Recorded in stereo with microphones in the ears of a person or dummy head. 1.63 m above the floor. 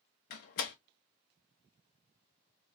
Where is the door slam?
50° left (ahead or behind), 0.7 m.